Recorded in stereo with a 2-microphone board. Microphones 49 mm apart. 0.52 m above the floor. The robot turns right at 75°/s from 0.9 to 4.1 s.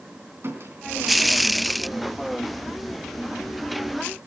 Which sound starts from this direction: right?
A squeak, at 0.4 s.